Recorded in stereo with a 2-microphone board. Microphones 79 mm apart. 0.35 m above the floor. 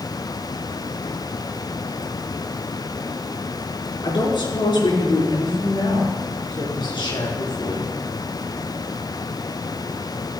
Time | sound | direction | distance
4.0 | a woman speaking | 75° left (ahead or behind) | 4.5 m